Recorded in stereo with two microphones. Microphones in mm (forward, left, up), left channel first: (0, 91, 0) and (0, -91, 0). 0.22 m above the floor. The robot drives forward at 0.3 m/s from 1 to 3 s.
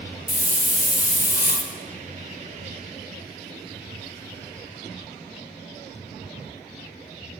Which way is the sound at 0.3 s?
50° left (ahead or behind).